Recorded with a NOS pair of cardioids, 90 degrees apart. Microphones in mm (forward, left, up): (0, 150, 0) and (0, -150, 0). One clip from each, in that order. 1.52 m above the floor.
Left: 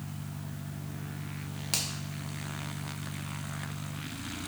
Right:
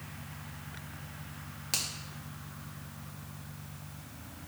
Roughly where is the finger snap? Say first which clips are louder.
Left 1 dB; ahead.